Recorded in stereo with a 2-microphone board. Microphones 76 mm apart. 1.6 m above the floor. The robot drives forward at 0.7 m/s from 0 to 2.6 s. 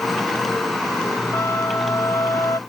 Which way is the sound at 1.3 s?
40° left (ahead or behind).